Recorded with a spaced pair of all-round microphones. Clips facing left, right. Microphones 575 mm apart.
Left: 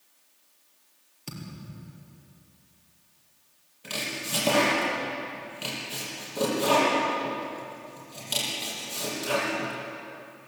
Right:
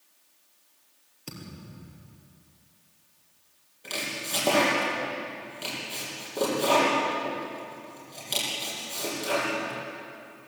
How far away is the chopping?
About 8 m.